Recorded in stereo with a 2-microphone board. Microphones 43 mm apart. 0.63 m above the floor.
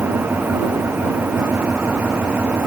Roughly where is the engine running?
Right.